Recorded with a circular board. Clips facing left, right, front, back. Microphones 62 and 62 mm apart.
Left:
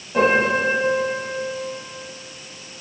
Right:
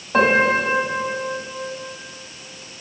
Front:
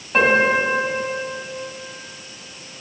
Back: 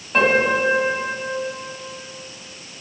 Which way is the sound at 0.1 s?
85° right.